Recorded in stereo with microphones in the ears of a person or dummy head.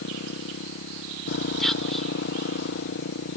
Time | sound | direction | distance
0.0 | a motorcycle | 60° left (ahead or behind) | ?
1.6 | whispering | centre (ahead or behind) | ?